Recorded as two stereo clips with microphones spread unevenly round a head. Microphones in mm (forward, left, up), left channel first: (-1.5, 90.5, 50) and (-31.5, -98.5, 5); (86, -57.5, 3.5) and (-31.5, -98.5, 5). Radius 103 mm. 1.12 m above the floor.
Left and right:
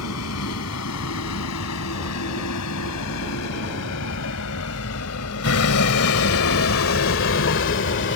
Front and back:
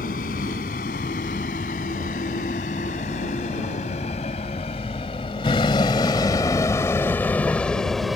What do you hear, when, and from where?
0.0 s a vehicle: 65° left; by 8.2 s 110° left